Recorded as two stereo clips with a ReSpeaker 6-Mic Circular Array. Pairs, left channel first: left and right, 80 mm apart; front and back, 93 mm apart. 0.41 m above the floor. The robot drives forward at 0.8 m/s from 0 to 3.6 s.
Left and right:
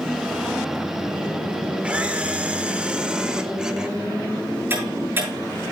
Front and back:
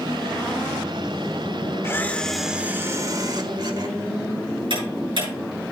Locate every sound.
1.8 s a camera shutter: 25° right, 0.9 m; by 4.0 s 170° right, 1.3 m
4.7 s ticking: 150° right, 7.5 m